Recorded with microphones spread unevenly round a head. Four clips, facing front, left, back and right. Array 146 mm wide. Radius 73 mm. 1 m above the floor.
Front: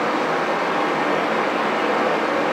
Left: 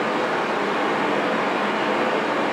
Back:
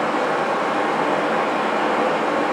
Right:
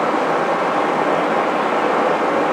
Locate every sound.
0.0 s running water: 100° right, 0.7 m